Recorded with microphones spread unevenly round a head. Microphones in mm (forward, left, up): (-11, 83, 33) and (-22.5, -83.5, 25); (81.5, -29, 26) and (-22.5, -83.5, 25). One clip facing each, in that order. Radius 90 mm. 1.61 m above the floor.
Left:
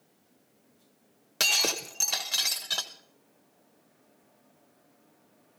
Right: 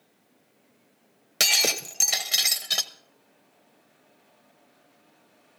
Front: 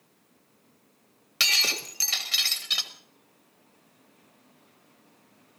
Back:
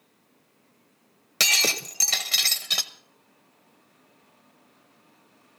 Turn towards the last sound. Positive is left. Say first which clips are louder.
# right 3 dB, back 5 dB
turn(degrees=-160)